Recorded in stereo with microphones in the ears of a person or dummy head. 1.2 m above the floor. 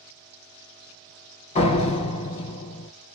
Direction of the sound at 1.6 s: 35° left (ahead or behind).